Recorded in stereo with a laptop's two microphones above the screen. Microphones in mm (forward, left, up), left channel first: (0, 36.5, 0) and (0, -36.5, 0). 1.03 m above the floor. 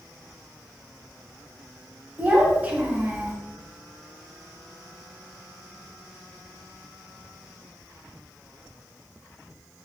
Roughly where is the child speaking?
Right.